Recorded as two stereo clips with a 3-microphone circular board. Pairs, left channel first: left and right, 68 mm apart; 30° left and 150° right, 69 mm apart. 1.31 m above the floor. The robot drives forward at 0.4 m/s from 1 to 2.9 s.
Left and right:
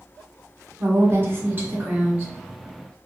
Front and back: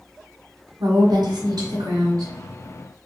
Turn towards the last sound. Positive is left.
turn(degrees=-165)